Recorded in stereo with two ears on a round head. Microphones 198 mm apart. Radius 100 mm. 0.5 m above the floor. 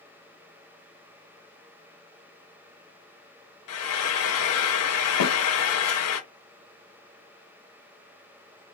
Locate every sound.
3.7 s frying: 70° left (ahead or behind), 0.6 m
5.2 s a snare drum: 80° left, 0.9 m